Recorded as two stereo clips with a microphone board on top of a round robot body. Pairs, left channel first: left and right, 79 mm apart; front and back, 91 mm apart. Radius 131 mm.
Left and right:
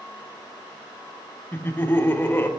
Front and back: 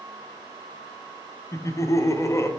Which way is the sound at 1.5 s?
40° left.